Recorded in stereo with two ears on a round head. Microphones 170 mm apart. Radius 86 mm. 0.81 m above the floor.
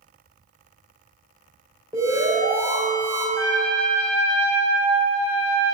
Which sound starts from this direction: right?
A trumpet, at 3.4 s.